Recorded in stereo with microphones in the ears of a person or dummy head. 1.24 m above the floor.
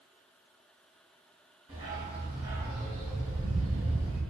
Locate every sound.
1.7 s a dog barking: 25° right (ahead or behind), 1.1 m